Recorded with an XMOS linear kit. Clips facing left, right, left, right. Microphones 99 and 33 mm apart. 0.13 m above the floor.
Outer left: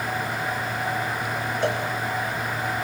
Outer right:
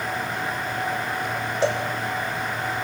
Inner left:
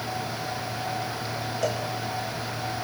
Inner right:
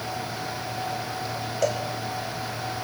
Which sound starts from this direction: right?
A cowbell, at 1.6 s.